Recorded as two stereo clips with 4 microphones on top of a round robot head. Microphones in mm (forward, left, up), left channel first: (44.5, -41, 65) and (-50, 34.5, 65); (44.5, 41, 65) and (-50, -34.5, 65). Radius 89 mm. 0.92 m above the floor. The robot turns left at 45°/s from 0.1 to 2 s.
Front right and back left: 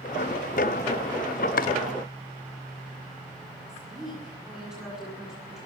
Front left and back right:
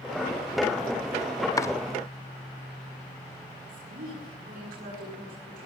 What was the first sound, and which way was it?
Chopping, 30° right.